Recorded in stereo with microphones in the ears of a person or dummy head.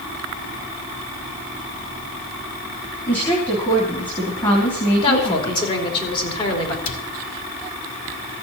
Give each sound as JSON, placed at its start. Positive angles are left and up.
{"t": 3.1, "sound": "a woman speaking", "side_deg": 25, "distance_m": 2.5}
{"t": 5.0, "sound": "a woman speaking", "side_deg": 30, "distance_m": 3.0}
{"t": 6.8, "sound": "a cupboard door", "side_deg": 70, "distance_m": 1.8}